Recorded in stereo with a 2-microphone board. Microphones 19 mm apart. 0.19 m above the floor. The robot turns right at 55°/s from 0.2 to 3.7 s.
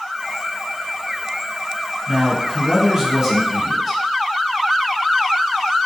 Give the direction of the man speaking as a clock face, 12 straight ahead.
2 o'clock.